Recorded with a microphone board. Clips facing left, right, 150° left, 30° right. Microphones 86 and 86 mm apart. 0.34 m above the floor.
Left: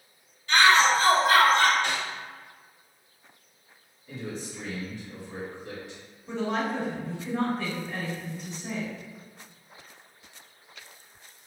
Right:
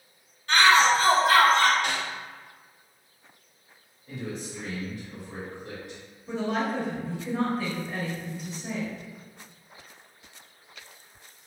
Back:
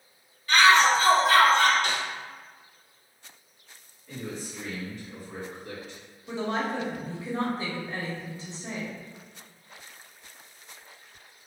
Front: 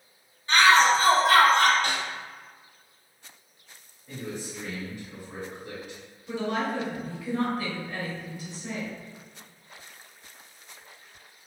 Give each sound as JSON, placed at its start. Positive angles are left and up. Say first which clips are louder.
{"t": 0.5, "sound": "a shout", "louder": "even, even", "azimuth_deg": -85, "distance_m": 1.4}
{"t": 1.8, "sound": "a snare drum", "louder": "even, even", "azimuth_deg": -15, "distance_m": 1.6}
{"t": 4.1, "sound": "a man speaking", "louder": "right 1 dB, front 1 dB", "azimuth_deg": -95, "distance_m": 1.4}
{"t": 6.3, "sound": "a woman speaking", "louder": "right 1 dB, front 1 dB", "azimuth_deg": -175, "distance_m": 1.0}